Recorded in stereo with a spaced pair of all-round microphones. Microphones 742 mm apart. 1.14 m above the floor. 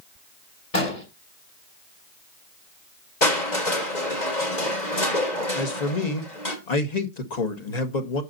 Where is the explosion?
50° left (ahead or behind), 3.5 m.